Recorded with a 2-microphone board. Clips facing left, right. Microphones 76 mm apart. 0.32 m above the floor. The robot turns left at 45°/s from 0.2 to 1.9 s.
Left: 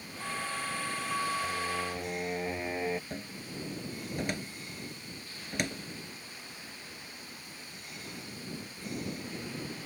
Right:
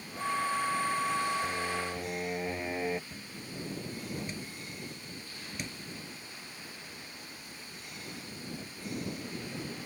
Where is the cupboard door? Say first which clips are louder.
Left 3 dB; 70° left (ahead or behind).